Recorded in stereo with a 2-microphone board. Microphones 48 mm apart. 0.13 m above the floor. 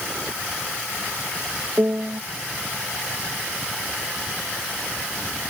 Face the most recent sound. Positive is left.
turn(degrees=-50)  # may be behind; listen again after turning